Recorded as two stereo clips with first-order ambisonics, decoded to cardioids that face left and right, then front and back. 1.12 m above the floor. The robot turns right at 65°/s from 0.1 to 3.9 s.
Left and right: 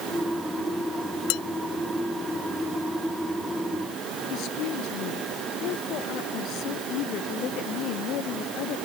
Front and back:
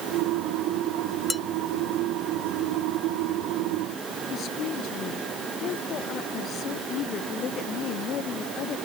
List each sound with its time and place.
1.3 s dishes clattering: 85° left; by 1.4 s 95° left
4.3 s a woman speaking: 50° left